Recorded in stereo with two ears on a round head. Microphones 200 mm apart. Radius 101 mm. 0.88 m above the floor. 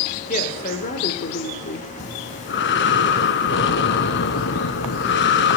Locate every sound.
0.3 s a woman speaking: 35° left (ahead or behind), 2.5 m; by 1.9 s 40° left (ahead or behind), 1.9 m
2.0 s breathing: 50° left (ahead or behind), 1.6 m